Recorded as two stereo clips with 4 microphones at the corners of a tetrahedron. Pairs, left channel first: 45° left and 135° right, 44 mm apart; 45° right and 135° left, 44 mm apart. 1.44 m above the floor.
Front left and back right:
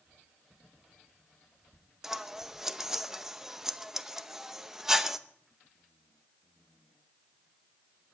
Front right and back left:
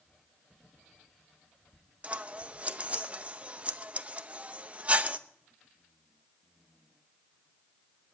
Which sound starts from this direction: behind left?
Scissors, at 2.0 s.